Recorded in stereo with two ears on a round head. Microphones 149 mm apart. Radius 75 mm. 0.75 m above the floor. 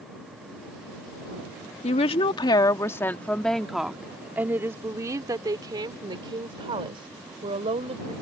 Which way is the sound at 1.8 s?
40° left (ahead or behind).